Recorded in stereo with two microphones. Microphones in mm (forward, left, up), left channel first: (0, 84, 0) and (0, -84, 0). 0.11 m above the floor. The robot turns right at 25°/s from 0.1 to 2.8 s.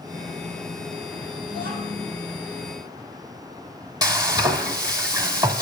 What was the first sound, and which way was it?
A child speaking, 70° right (ahead or behind).